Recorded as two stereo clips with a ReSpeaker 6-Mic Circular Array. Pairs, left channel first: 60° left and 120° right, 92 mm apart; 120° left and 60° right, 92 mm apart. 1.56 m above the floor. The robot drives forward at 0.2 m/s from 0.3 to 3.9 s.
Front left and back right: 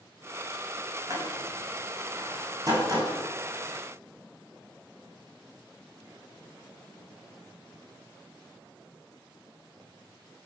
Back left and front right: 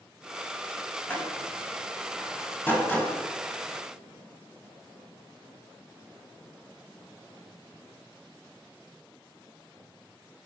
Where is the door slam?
170° right, 8 m.